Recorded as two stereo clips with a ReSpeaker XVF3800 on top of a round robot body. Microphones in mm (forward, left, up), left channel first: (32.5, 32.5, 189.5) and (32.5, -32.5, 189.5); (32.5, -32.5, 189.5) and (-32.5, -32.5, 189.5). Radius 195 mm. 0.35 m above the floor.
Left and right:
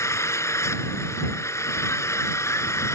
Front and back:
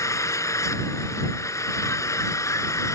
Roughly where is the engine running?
Ahead left.